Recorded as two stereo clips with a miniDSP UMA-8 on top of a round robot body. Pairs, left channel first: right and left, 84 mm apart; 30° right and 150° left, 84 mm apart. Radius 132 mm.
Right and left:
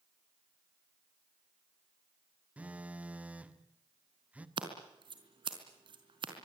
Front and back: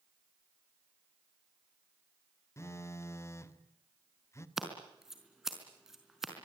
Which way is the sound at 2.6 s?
20° left.